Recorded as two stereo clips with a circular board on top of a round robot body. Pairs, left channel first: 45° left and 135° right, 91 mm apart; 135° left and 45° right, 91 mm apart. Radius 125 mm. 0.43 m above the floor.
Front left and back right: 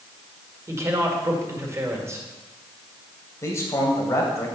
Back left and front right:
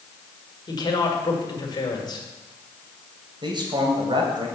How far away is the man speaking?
About 2.5 m.